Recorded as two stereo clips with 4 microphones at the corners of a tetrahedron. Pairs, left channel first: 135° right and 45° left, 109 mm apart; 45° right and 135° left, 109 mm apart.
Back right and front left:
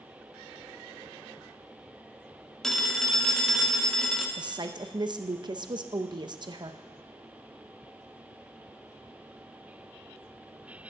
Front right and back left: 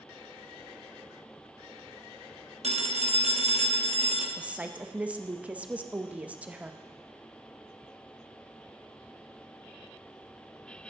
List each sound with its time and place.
2.6 s a phone ringing: 140° left, 1.0 m
4.4 s a woman speaking: 65° left, 0.6 m